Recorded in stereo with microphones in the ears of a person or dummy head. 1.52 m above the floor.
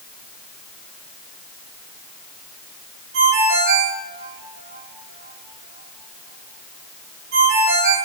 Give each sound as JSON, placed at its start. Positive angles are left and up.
{"t": 3.1, "sound": "a ringtone", "side_deg": -75, "distance_m": 4.0}